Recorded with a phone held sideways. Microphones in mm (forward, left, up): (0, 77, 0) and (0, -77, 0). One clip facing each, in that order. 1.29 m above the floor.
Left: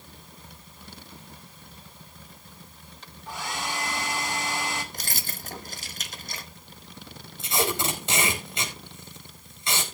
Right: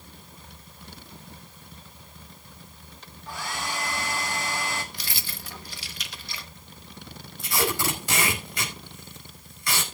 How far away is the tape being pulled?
About 4 m.